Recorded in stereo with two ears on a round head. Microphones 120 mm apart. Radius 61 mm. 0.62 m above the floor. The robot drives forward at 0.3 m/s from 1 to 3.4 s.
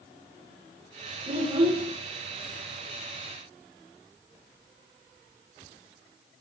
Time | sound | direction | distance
1.3 | a child speaking | 40° right (ahead or behind) | 1.2 m